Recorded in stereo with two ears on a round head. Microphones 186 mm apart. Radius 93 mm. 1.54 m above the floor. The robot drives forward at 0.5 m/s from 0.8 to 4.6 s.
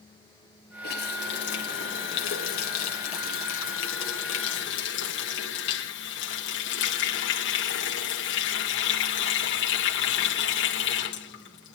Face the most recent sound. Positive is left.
turn(degrees=65)  # may be behind; listen again after turning